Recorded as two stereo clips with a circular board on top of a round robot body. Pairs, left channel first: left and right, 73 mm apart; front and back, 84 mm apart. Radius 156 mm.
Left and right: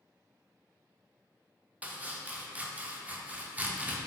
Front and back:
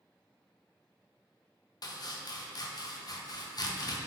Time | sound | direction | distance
1.8 | chopping | 25° right | 0.6 m